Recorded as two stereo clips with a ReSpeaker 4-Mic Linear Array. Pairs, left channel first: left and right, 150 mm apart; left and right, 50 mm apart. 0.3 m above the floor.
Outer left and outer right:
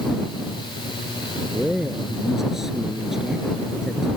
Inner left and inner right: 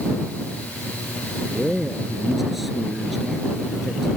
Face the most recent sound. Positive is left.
turn(degrees=-5)  # may be behind; listen again after turning